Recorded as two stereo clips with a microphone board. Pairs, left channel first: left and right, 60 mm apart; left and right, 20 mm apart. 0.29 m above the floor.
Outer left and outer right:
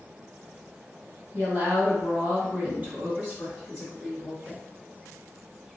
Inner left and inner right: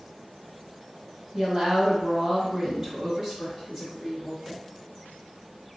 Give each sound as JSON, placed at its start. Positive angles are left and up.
{"t": 1.3, "sound": "a woman speaking", "side_deg": -45, "distance_m": 1.9}